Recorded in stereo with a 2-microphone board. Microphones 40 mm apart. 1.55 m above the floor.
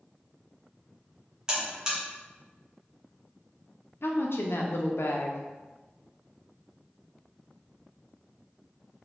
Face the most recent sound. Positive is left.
turn(degrees=75)  # may be behind; listen again after turning